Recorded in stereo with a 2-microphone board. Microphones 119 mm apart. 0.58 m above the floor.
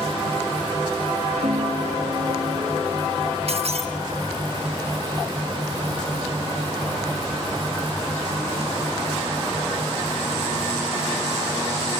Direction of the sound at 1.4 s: 50° right (ahead or behind).